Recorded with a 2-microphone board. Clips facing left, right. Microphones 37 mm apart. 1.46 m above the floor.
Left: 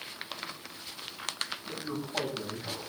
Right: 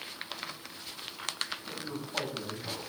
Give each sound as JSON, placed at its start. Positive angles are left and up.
{"t": 1.7, "sound": "a man speaking", "side_deg": 0, "distance_m": 7.0}